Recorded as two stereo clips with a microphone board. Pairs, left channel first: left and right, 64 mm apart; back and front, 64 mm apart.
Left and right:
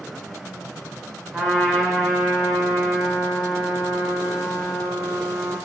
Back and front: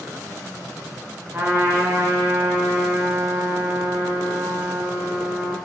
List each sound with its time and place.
1.3 s a trumpet: 10° left, 0.7 m